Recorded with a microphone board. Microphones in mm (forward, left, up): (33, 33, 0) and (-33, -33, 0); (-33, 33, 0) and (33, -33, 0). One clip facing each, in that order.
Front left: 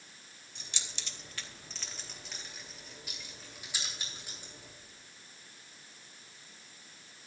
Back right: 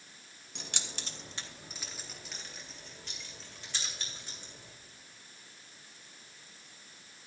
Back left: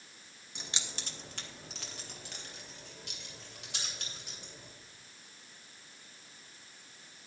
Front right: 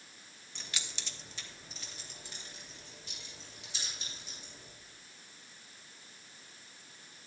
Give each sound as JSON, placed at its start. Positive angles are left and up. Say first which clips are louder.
{"t": 0.6, "sound": "keys jangling", "louder": "back right 5 dB, back left 2 dB", "azimuth_deg": -150, "distance_m": 1.4}